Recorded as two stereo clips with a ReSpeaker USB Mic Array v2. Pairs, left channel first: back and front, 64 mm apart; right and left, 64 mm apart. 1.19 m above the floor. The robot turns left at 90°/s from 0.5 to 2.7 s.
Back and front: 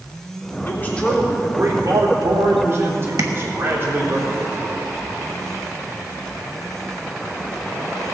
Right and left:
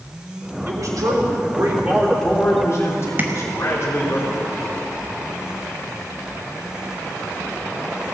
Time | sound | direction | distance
0.7 | a man speaking | 135° left | 3 m
3.2 | tapping | 30° left | 1.3 m